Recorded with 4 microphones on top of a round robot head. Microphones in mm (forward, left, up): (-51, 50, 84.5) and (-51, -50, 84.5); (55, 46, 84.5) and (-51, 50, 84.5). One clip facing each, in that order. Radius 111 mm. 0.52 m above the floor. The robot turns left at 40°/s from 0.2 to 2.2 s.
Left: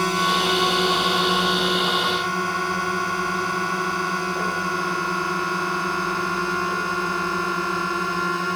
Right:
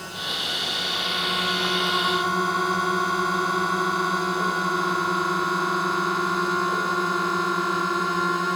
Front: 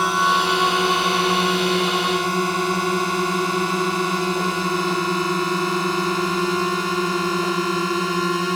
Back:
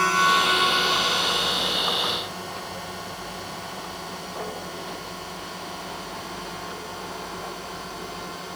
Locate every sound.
0.0 s a drone: 70° left; by 8.6 s 5° right